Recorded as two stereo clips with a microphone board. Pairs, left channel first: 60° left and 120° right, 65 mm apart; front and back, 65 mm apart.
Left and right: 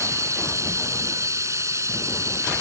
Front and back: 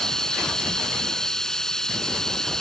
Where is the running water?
80° right.